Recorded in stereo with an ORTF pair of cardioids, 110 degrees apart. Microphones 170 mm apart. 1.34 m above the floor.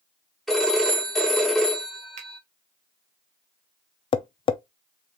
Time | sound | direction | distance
0.5 | a phone ringing | straight ahead | 3 m
2.2 | a finger snap | 45° right | 1.6 m
4.1 | tapping | 30° left | 0.6 m